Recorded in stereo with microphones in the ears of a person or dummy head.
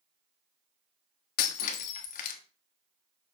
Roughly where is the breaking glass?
Left.